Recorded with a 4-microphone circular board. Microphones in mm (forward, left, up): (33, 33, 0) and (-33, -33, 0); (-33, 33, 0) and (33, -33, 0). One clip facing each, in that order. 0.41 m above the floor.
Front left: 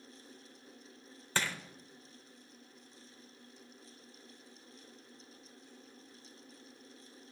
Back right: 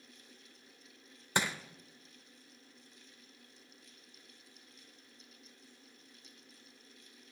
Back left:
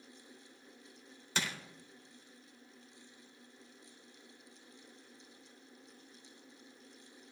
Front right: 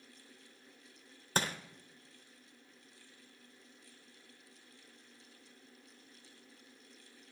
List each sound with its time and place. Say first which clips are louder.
1.4 s crushing: back right 2 dB, front right 4 dB; 70° right, 0.8 m